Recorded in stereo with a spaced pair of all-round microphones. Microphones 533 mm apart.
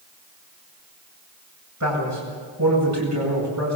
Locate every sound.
1.8 s a man speaking: 30° right (ahead or behind), 8.5 m